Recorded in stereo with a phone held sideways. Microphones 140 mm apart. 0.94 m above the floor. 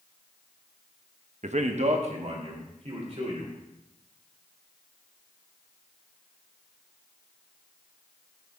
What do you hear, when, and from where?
1.4 s a man speaking: 55° right (ahead or behind), 0.6 m; by 3.5 s 50° right (ahead or behind), 3 m